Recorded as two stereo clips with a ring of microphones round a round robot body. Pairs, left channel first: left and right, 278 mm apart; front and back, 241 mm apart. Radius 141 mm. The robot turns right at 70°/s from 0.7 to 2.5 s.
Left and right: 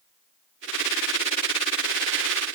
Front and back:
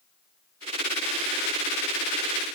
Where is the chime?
I don't hear a chime.